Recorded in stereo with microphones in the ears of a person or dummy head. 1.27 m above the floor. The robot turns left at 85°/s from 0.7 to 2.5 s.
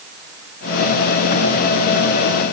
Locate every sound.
Only background noise.